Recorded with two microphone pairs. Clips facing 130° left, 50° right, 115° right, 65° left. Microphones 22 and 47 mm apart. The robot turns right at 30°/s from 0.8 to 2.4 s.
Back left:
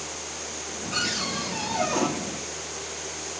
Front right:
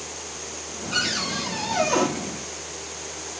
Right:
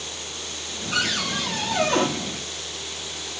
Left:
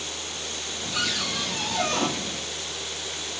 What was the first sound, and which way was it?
A cupboard door, 120° right.